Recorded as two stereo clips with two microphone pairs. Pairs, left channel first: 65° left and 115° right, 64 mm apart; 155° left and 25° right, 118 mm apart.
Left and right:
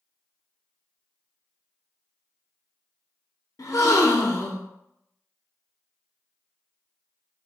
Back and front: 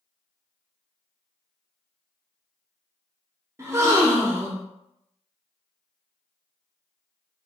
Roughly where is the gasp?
Ahead left.